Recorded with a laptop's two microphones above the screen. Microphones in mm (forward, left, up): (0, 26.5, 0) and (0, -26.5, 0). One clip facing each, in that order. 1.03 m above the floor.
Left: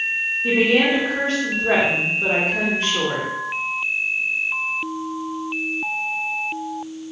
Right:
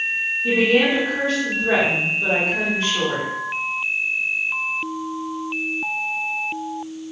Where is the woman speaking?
50° left (ahead or behind), 0.9 m.